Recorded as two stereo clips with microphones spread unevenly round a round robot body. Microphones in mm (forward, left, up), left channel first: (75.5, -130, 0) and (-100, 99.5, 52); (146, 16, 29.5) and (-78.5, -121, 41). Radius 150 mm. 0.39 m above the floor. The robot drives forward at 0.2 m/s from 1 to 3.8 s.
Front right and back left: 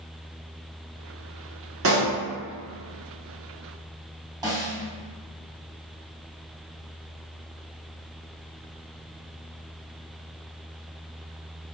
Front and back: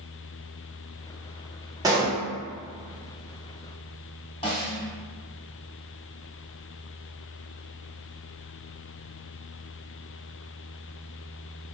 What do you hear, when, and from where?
1.8 s a pop: 140° left, 1.3 m; by 2.2 s 145° left, 1.3 m
4.4 s a snare drum: 45° left, 1.4 m